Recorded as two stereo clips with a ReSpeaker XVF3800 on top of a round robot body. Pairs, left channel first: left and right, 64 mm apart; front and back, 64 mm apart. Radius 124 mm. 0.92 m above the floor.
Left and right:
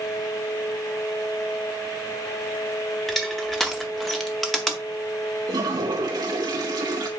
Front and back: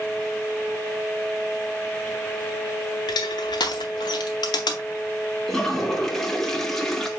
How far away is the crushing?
About 0.5 m.